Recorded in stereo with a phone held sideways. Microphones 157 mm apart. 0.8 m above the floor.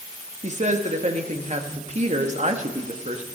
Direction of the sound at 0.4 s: 50° right (ahead or behind).